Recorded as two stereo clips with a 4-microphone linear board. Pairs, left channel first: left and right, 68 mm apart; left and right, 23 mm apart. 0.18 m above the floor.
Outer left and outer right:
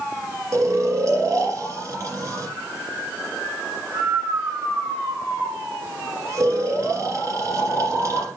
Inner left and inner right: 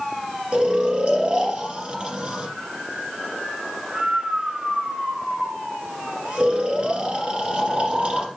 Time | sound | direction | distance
0.5 | snoring | 55° right (ahead or behind) | 1.9 m